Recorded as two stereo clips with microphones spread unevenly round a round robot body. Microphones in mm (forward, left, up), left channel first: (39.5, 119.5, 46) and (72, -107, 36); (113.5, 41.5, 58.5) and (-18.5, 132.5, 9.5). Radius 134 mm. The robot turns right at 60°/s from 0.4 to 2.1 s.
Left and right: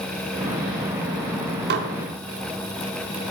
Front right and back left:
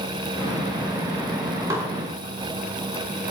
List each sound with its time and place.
1.7 s dishes clattering: 135° right, 1.1 m; by 1.9 s 125° right, 1.1 m